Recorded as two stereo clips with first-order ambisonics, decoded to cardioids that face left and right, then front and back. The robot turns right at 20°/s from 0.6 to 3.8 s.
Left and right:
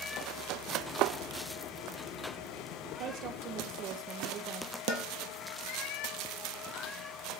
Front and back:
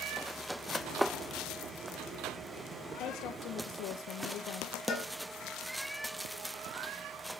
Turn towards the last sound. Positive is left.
turn(degrees=55)